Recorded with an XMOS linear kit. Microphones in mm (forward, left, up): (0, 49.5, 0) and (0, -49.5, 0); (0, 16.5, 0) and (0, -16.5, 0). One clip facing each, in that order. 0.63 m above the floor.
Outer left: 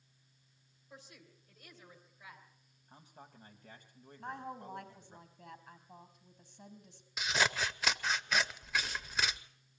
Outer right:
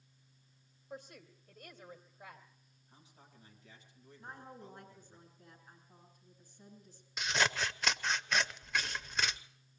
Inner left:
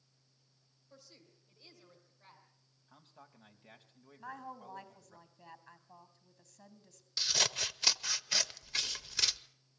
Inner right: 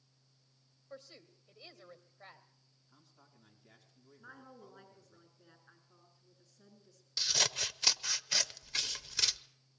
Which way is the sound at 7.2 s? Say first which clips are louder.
Even, even; centre (ahead or behind).